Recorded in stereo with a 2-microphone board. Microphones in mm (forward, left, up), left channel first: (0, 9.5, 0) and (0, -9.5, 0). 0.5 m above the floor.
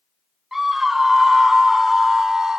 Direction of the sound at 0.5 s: 15° right (ahead or behind).